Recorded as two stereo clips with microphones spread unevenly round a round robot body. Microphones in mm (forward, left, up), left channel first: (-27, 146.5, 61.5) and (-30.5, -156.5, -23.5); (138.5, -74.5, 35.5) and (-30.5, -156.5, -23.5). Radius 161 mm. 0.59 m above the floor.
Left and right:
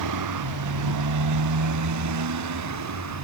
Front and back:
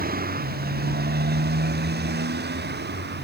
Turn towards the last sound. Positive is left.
turn(degrees=-125)